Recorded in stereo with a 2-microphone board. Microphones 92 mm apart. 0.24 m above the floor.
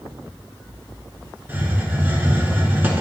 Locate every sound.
1.5 s a hiss: 25° right (ahead or behind), 0.7 m